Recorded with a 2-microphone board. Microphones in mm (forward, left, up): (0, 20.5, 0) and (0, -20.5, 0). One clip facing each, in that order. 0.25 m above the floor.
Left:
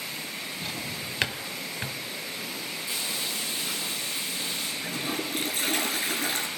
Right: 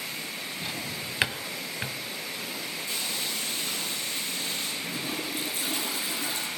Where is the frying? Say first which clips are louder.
Left 1 dB; 10° left (ahead or behind), 9.5 m.